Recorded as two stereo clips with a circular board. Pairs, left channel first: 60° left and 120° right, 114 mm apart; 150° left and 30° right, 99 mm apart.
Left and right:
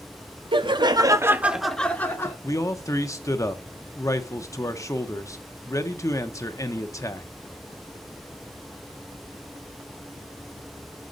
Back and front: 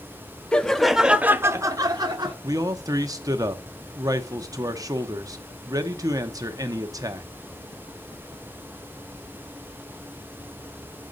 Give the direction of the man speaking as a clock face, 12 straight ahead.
12 o'clock.